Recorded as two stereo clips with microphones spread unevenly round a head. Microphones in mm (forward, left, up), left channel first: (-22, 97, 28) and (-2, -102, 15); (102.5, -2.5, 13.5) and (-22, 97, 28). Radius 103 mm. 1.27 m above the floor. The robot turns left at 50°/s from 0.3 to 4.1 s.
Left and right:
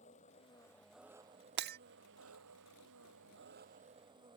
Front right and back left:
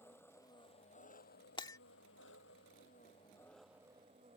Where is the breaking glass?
100° right; by 1.8 s 115° right.